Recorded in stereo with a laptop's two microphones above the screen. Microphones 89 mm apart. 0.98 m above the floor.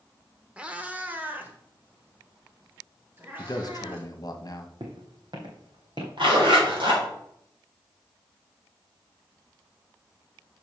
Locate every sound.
0.6 s a cat meowing: 15° right (ahead or behind), 0.7 m; by 4.1 s 25° right (ahead or behind), 2.5 m
3.4 s a man speaking: 50° left (ahead or behind), 1.2 m
4.8 s footsteps: 60° right (ahead or behind), 1.9 m; by 6.1 s 65° right (ahead or behind), 2.5 m
6.2 s a zipper: 80° right, 3.5 m